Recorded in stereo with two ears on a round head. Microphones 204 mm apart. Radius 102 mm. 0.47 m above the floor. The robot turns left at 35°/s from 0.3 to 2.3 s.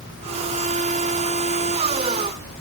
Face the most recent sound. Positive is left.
No sound to turn to.